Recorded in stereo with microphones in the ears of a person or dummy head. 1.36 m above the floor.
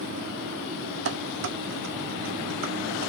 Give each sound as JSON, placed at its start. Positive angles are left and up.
{"t": 1.1, "sound": "dishes clattering", "side_deg": -60, "distance_m": 0.9}